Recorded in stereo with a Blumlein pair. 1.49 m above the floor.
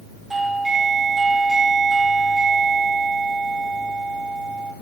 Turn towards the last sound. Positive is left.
turn(degrees=-10)